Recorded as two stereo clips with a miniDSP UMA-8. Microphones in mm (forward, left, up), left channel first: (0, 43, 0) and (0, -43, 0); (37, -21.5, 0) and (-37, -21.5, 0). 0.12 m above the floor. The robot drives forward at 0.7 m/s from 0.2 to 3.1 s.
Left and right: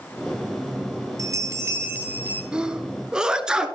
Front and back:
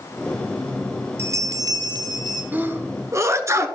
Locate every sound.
1.2 s a bell: 130° right, 0.6 m; by 2.4 s 160° right, 1.3 m
2.5 s a sneeze: 155° right, 1.1 m; by 3.7 s 165° right, 1.3 m